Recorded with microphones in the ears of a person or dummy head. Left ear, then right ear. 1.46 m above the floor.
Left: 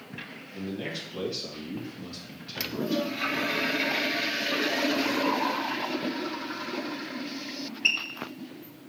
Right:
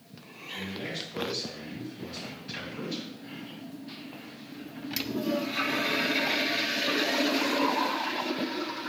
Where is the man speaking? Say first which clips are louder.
Even; 20° left (ahead or behind), 1.7 m.